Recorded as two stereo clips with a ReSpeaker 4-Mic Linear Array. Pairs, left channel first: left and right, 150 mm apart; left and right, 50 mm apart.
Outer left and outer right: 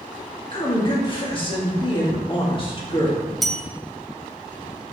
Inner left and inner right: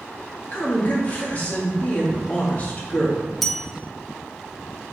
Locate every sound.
0.5 s a woman speaking: 35° left (ahead or behind), 1.8 m
3.4 s a bell: centre (ahead or behind), 0.6 m